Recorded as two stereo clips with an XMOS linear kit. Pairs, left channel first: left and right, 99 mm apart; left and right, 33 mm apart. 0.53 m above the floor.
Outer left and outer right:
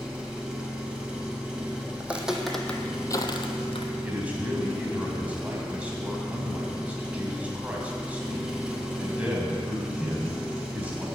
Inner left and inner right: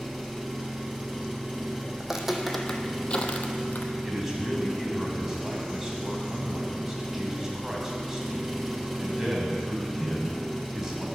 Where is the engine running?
10° right (ahead or behind), 2.5 m.